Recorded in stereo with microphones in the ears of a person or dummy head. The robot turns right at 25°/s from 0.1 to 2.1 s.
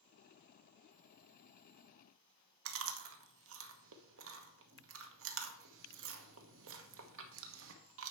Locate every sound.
2.6 s chewing: 75° right (ahead or behind), 1.1 m